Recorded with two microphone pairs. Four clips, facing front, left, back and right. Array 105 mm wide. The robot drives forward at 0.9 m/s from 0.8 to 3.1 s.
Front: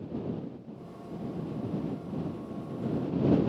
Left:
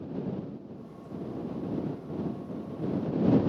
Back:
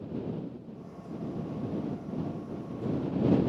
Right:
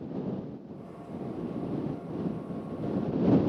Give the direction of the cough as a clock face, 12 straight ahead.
No cough in this recording.